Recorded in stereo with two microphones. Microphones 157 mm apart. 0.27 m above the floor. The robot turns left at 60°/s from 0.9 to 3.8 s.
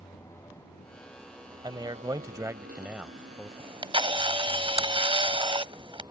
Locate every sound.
0.0 s a motorcycle: 20° left; by 6.1 s 155° right
1.6 s a man speaking: 25° right (ahead or behind); by 3.5 s 5° left (ahead or behind)
3.6 s a camera shutter: 35° right (ahead or behind)